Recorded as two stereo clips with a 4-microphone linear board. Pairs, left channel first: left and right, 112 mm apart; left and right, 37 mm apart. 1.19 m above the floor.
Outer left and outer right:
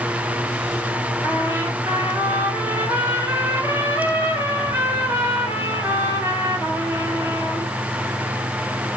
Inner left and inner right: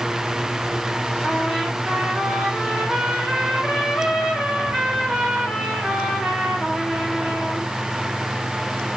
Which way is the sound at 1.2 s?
25° right (ahead or behind).